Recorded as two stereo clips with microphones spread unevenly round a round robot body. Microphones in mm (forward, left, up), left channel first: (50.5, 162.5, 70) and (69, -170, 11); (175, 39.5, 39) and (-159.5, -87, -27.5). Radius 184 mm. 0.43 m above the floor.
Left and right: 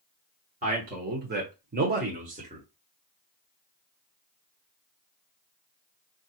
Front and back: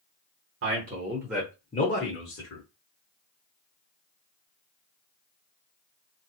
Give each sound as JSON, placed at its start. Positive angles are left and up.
{"t": 0.6, "sound": "a man speaking", "azimuth_deg": -135, "distance_m": 1.1}